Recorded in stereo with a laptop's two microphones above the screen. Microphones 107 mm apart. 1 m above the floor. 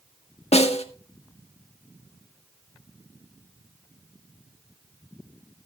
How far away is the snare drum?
About 1.6 m.